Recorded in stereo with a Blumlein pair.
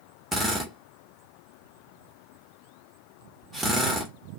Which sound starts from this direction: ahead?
A drill, at 0.3 s.